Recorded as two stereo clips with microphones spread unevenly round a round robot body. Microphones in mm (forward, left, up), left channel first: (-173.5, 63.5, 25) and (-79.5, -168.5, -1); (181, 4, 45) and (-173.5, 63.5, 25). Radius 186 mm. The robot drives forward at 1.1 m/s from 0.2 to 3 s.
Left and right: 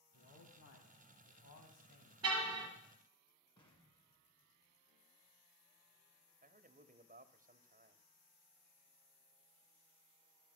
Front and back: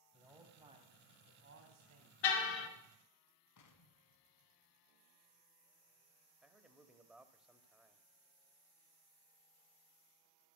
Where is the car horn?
20° right, 3 m; by 2.7 s 25° right, 2.5 m.